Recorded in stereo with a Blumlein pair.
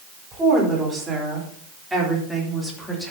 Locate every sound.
0.3 s a woman speaking: 15° right, 4 m; by 3.1 s 5° left, 2.5 m